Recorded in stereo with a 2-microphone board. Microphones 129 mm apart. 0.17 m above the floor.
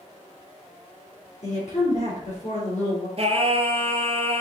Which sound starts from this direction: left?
A woman speaking, at 1.4 s.